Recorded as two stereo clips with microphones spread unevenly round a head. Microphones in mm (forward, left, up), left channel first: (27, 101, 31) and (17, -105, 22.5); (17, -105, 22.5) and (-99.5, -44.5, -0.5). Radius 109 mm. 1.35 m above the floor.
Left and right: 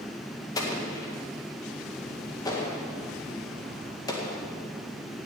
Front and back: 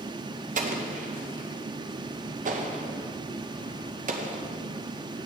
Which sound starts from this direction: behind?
An explosion, at 0.6 s.